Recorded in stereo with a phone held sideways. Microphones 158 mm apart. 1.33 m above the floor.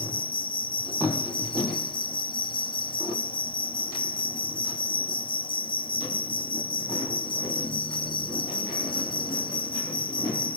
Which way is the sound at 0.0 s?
30° left (ahead or behind).